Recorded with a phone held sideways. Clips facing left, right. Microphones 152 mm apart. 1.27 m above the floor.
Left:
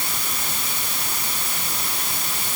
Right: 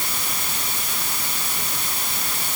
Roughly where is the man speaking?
I don't hear a man speaking.